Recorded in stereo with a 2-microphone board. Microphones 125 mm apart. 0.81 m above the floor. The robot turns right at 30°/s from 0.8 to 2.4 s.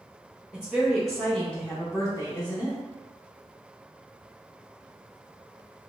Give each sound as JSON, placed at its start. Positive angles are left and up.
{"t": 0.5, "sound": "a woman speaking", "azimuth_deg": -10, "distance_m": 0.7}